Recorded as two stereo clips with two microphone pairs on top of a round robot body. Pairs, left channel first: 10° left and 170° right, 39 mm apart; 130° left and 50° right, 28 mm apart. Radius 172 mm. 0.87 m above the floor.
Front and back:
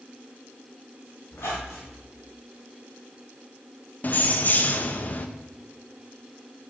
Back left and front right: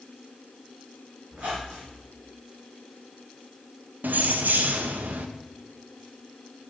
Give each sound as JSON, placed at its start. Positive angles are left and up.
{"t": 1.3, "sound": "a squeak", "azimuth_deg": -25, "distance_m": 1.0}
{"t": 4.0, "sound": "keys jangling", "azimuth_deg": -35, "distance_m": 0.5}